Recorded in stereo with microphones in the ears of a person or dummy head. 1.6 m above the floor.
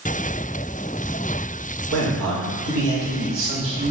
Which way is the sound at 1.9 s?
75° right (ahead or behind).